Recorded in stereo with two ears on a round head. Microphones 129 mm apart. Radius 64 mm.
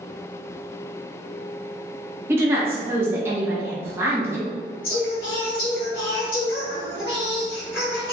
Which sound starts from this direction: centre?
A woman speaking, at 2.3 s.